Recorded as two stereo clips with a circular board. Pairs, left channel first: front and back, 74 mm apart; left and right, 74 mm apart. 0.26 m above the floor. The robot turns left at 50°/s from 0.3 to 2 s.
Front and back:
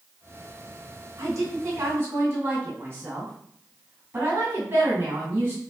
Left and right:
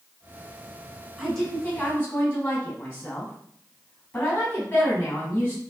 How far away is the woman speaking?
About 2 m.